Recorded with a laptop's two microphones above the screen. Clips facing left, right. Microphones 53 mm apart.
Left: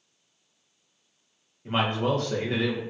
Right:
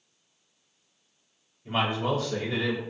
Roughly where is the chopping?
No chopping in this recording.